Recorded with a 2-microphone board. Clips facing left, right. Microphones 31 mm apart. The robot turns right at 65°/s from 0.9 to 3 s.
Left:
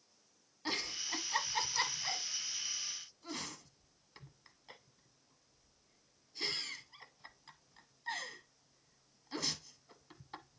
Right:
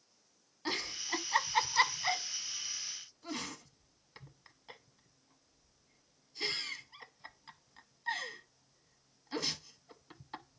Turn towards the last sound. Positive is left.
turn(degrees=-15)  # may be behind; listen again after turning